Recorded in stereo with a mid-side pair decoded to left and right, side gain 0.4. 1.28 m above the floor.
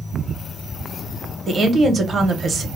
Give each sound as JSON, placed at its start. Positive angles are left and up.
{"t": 1.5, "sound": "a woman speaking", "azimuth_deg": -45, "distance_m": 1.1}